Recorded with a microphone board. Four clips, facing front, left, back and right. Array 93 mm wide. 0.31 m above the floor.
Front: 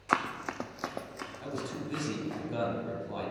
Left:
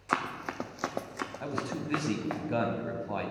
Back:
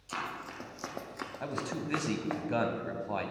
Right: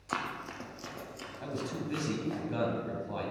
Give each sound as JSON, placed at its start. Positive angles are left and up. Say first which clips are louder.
{"t": 0.1, "sound": "running footsteps", "louder": "left 4 dB, front 8 dB", "azimuth_deg": 25, "distance_m": 1.0}
{"t": 1.4, "sound": "a man speaking", "louder": "even, back 1 dB", "azimuth_deg": 145, "distance_m": 1.5}